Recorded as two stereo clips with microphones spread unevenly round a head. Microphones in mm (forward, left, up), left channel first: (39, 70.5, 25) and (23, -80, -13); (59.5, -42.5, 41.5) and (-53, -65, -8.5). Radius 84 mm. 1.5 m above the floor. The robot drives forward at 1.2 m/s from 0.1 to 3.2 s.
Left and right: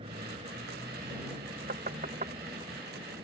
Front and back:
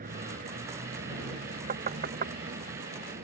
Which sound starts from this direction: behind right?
Knocking, at 1.7 s.